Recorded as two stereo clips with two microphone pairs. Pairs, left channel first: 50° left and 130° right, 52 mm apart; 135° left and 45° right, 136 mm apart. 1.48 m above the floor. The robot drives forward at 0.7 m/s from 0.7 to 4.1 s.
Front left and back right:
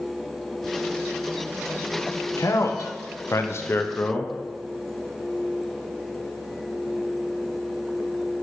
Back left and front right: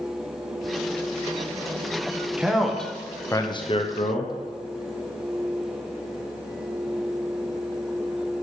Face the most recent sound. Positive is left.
turn(degrees=110)